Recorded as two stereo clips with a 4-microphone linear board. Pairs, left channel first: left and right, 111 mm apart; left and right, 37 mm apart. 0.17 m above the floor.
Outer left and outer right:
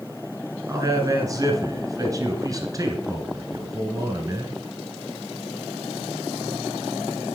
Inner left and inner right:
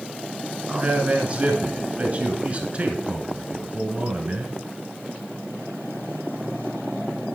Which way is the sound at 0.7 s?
30° right (ahead or behind).